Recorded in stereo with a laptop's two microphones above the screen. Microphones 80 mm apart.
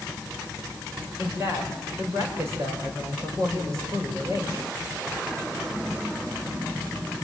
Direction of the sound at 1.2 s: 40° right (ahead or behind).